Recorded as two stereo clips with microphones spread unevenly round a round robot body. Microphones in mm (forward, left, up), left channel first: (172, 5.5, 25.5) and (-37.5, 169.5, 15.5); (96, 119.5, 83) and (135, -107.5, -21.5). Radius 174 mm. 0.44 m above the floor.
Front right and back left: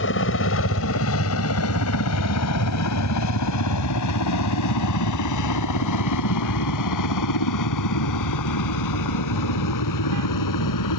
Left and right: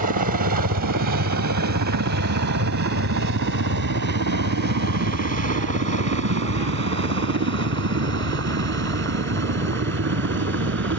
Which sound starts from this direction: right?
A helicopter, at 0.0 s.